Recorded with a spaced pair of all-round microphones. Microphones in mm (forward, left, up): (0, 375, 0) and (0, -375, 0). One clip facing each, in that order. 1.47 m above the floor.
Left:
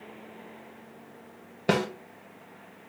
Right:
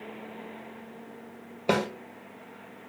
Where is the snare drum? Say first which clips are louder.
Even; 45° left (ahead or behind), 1.9 m.